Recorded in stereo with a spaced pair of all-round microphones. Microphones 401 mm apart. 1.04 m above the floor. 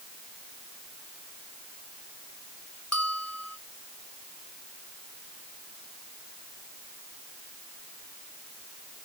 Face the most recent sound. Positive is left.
turn(degrees=40)  # may be behind; listen again after turning